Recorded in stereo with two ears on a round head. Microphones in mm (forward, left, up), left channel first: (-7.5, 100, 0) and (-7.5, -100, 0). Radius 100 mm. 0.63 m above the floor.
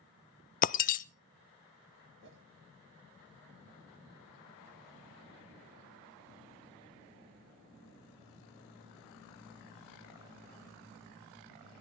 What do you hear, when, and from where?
0.6 s breaking glass: 35° left (ahead or behind), 0.5 m
2.2 s a whoosh: 60° right (ahead or behind), 2.0 m